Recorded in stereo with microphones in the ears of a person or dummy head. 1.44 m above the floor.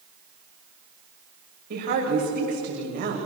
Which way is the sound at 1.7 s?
55° right (ahead or behind).